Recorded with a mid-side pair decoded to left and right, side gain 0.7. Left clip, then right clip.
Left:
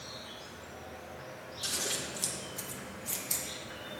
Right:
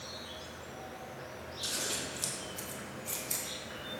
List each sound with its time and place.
0.0 s an insect: 5° right, 0.7 m
1.6 s scissors: 10° left, 1.4 m